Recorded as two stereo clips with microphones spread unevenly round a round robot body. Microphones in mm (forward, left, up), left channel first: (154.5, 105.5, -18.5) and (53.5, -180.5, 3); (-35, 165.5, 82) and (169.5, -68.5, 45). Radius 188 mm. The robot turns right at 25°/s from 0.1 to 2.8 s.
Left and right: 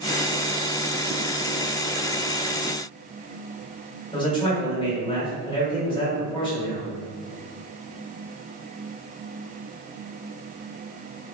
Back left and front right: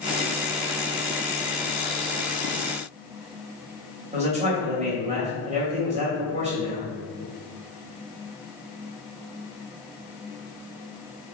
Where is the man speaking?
5° left, 1.6 m.